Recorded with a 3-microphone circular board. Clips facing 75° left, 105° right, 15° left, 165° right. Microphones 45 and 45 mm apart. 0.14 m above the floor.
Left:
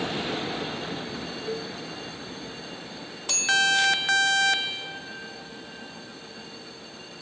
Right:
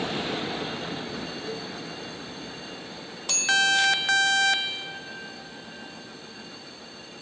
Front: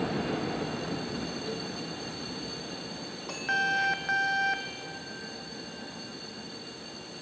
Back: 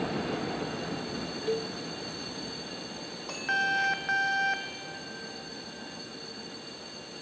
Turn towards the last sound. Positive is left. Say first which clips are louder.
# left 2 dB, back 5 dB
turn(degrees=150)